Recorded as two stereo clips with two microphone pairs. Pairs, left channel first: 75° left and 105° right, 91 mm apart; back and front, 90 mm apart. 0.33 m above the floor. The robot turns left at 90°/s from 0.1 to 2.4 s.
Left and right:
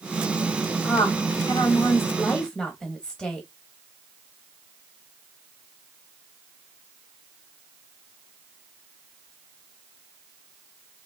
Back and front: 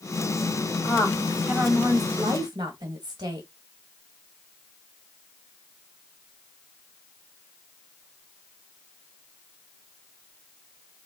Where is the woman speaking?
140° left, 1.8 m; by 3.5 s straight ahead, 1.8 m.